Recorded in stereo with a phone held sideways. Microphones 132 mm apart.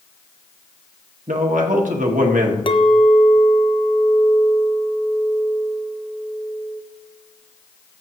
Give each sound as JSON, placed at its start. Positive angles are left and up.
{"t": 1.3, "sound": "a man speaking", "side_deg": -80, "distance_m": 1.6}
{"t": 2.7, "sound": "a clink", "side_deg": 40, "distance_m": 0.7}